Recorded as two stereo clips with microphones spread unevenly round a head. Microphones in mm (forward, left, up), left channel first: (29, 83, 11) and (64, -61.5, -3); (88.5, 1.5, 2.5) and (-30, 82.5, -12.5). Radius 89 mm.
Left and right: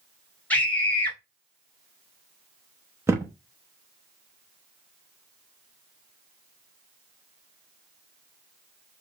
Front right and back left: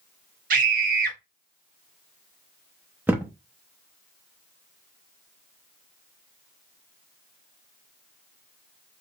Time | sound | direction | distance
0.5 | a scream | 170° right | 0.9 m
3.1 | a thud | 140° right | 0.7 m